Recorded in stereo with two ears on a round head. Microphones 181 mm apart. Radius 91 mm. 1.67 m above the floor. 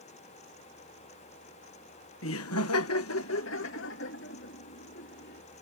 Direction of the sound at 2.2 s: 70° left (ahead or behind).